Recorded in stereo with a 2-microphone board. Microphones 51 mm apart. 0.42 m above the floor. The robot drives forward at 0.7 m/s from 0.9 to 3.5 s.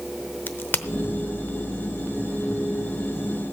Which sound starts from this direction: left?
A crack, at 0.5 s.